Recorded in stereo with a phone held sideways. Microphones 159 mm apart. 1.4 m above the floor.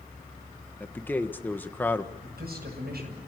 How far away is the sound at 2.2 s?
About 9 m.